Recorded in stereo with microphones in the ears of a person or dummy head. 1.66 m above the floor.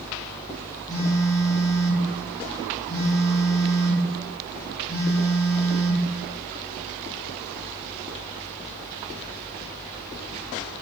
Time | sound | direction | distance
0.9 | a phone buzzing | 10° left (ahead or behind) | 0.6 m